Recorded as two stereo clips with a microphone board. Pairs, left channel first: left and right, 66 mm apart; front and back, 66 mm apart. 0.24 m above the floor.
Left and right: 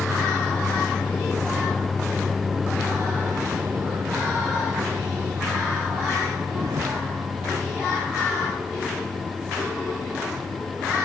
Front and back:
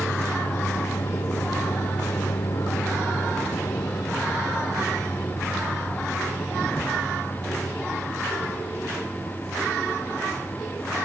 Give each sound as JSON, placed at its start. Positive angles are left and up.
{"t": 0.0, "sound": "a vehicle", "azimuth_deg": 40}